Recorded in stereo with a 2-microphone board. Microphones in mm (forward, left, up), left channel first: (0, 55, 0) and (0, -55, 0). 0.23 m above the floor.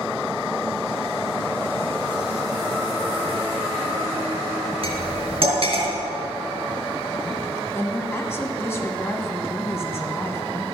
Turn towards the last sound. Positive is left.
turn(degrees=25)  # may be behind; listen again after turning